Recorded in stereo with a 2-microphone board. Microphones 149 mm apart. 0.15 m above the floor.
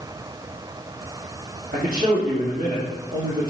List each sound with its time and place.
1.7 s a man speaking: 80° right, 5.5 m